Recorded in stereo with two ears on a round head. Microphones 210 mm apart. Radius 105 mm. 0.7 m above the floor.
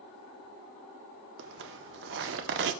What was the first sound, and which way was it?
A zipper, 55° right (ahead or behind).